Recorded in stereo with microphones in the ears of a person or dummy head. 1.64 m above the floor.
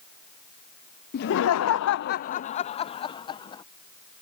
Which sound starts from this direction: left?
Laughter, at 1.1 s.